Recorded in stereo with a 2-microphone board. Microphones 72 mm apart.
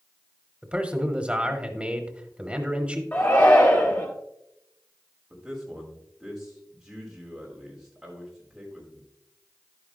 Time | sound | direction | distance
0.6 | a man speaking | 15° right (ahead or behind) | 0.9 m
3.1 | a shout | 30° left (ahead or behind) | 1.5 m
5.3 | a man speaking | 5° right (ahead or behind) | 4 m